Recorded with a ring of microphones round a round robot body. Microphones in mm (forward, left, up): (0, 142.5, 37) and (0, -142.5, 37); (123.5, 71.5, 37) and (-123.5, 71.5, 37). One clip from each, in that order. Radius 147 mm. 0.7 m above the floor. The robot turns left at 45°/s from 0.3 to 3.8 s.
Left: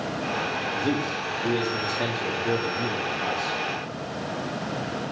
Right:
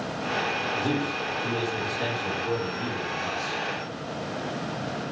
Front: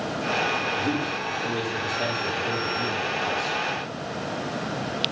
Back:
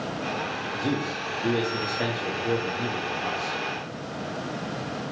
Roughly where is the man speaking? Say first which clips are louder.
Left 1 dB, front 2 dB; behind.